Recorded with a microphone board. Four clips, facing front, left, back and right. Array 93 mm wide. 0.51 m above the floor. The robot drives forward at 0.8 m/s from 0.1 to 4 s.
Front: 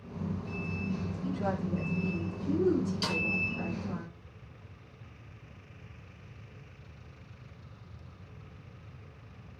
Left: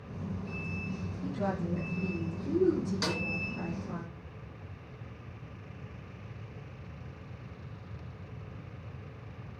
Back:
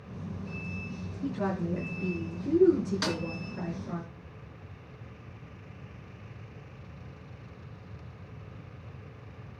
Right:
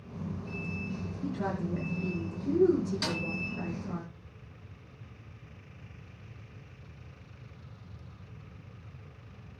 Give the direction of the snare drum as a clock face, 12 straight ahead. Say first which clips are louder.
Left 1 dB, back 2 dB; 6 o'clock.